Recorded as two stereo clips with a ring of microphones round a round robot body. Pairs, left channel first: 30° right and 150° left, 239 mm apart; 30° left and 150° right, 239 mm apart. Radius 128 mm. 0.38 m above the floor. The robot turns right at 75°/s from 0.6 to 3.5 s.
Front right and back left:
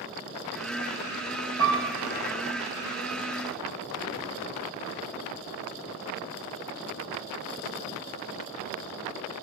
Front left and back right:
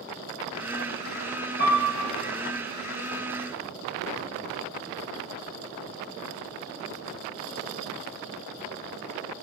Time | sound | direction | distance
1.6 | a piano | 80° left | 2 m